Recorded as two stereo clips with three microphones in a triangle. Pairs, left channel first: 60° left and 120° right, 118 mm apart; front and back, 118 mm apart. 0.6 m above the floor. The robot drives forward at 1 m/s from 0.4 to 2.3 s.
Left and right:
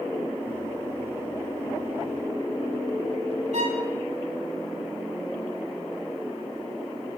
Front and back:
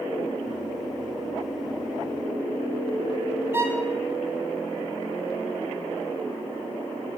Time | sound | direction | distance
3.5 | a violin | 110° right | 1.2 m